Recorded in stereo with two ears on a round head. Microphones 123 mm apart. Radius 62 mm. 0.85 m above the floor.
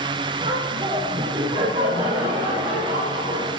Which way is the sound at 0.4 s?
40° right (ahead or behind).